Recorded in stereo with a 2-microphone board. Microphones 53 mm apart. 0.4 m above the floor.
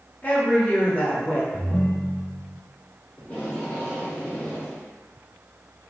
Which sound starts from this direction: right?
A ringtone, at 1.5 s.